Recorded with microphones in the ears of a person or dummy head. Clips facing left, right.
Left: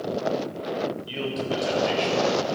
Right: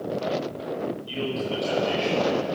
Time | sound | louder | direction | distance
1.1 | a man speaking | even | 20° left (ahead or behind) | 5 m